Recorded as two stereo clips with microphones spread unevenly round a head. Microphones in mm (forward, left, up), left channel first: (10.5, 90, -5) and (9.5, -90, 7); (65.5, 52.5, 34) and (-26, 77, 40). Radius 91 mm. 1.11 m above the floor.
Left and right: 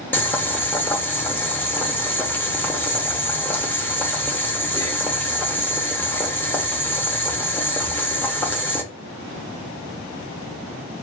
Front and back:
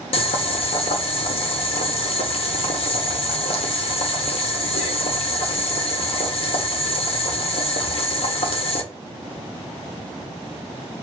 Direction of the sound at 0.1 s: 10° left.